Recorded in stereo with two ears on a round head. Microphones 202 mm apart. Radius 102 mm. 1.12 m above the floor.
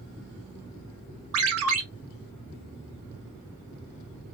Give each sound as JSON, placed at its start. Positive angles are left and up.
{"t": 1.3, "sound": "a ringtone", "side_deg": -65, "distance_m": 1.1}